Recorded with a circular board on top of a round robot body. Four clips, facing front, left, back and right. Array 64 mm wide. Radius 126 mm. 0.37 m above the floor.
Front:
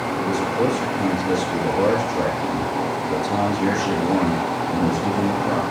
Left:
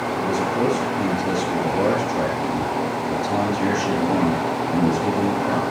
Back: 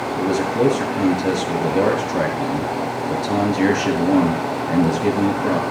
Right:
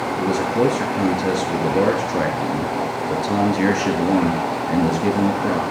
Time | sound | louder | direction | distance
0.2 | a man speaking | right 3 dB, back 4 dB | 130° right | 6.5 m